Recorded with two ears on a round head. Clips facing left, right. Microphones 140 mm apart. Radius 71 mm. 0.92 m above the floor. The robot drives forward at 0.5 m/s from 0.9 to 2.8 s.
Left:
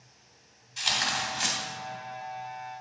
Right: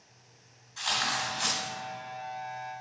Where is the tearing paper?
20° left (ahead or behind), 2 m.